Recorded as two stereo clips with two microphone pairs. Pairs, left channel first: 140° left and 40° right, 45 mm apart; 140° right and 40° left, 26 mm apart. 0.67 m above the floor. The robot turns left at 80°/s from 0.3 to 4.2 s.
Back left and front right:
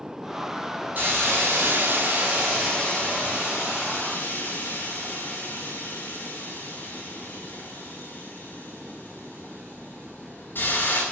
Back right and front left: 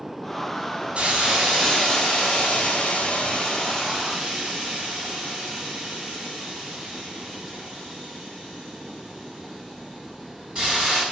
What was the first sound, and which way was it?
A hiss, straight ahead.